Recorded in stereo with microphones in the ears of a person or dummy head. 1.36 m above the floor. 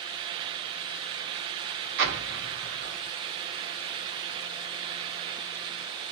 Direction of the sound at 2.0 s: 65° right (ahead or behind).